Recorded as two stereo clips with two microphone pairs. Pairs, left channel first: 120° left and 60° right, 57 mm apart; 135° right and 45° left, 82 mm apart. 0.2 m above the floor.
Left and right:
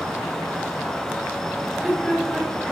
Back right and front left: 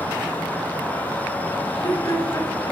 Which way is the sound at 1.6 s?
140° right.